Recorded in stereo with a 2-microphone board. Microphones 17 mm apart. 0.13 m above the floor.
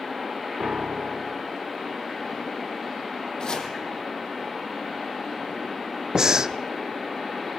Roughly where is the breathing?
Right.